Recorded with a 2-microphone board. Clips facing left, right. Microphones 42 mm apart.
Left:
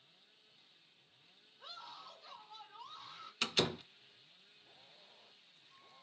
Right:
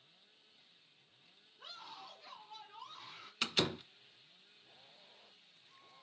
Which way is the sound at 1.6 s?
70° right (ahead or behind).